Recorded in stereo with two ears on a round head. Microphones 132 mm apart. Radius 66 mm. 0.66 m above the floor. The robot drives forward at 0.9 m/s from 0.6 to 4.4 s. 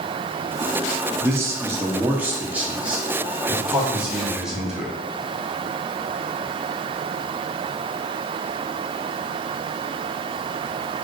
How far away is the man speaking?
About 1.2 m.